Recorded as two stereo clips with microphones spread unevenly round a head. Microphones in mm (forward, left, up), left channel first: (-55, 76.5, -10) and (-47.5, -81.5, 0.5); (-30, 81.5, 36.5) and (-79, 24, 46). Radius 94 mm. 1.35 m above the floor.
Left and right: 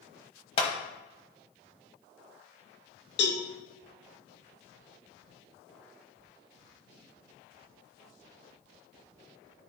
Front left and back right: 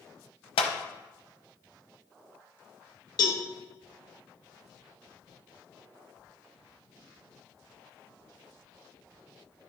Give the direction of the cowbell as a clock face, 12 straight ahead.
9 o'clock.